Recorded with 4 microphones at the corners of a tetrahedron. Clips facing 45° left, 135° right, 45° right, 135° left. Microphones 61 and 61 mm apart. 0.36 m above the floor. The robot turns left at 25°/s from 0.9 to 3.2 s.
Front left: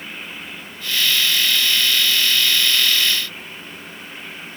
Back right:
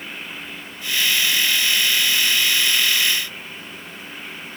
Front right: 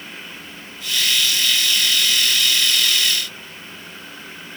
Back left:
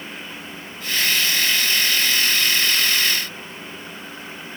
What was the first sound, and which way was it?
Only background noise.